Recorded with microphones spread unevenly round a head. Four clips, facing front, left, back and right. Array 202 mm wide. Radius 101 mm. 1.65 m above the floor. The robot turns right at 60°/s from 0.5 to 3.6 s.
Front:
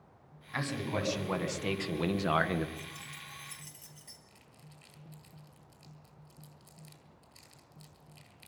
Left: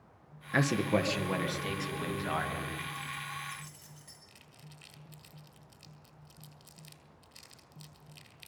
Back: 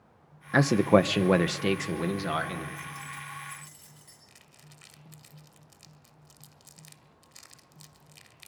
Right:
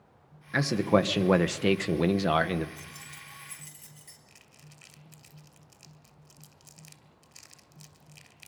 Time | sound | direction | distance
0.5 | a man speaking | 175° left | 1.3 m
2.8 | keys jangling | 90° right | 5 m
4.3 | crumpling | 175° right | 1.9 m